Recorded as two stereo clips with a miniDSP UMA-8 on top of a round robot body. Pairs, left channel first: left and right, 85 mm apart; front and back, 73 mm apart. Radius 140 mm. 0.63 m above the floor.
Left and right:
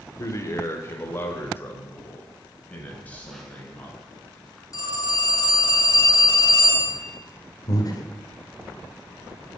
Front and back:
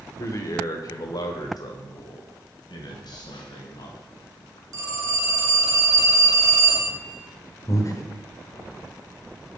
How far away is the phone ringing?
About 4.5 m.